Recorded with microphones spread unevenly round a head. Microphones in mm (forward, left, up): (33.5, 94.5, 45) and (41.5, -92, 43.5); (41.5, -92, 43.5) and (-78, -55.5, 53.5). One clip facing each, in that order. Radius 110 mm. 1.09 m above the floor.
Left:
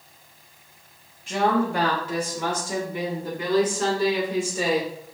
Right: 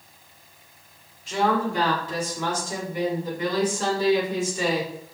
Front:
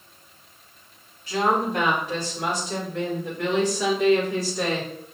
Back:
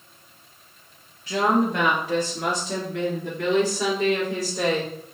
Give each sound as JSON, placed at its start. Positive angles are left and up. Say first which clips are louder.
{"t": 1.3, "sound": "a woman speaking", "louder": "left 1 dB, back 2 dB", "azimuth_deg": 140, "distance_m": 1.4}